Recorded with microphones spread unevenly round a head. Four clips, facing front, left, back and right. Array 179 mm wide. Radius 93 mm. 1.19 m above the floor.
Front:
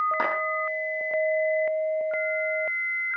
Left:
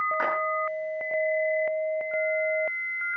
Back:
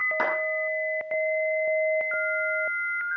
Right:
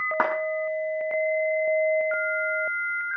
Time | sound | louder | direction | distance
0.2 | a clap | right 7 dB, even | 85° right | 8.5 m